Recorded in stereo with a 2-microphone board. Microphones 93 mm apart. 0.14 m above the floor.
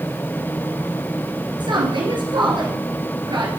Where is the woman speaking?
60° right (ahead or behind), 1.9 m.